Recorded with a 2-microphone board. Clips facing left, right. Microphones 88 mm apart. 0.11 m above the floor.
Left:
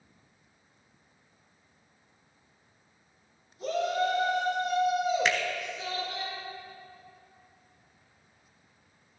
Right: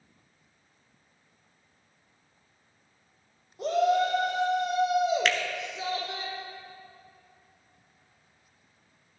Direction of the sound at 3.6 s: 60° right (ahead or behind).